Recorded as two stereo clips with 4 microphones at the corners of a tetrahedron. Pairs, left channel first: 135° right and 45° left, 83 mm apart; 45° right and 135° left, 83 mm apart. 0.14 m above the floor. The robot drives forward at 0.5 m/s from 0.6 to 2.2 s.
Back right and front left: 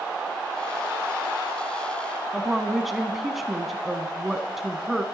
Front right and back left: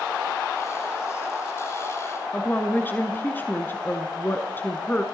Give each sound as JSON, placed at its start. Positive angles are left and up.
{"t": 2.3, "sound": "a woman speaking", "azimuth_deg": -40, "distance_m": 1.1}